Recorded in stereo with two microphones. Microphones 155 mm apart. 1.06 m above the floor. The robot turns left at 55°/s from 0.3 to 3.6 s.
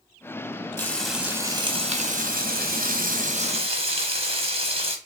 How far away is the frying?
About 0.8 m.